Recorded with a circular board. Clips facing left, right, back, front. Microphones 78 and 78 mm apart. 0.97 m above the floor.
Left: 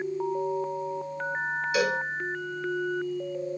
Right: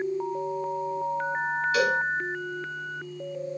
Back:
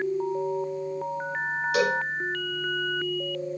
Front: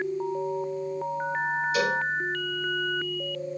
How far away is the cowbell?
About 3.5 m.